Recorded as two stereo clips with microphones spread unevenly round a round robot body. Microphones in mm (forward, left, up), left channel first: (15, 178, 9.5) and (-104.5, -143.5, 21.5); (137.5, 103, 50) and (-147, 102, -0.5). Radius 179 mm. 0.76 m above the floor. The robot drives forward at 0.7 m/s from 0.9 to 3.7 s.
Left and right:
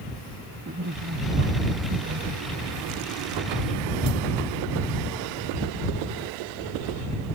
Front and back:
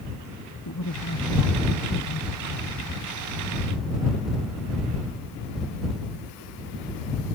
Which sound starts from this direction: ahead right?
A man speaking, at 0.7 s.